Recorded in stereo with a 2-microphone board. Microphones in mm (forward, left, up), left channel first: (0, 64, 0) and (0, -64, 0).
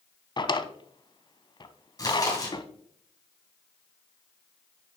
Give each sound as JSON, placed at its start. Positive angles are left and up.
{"t": 0.4, "sound": "a drawer", "side_deg": 35, "distance_m": 0.6}
{"t": 2.0, "sound": "chewing", "side_deg": 30, "distance_m": 2.5}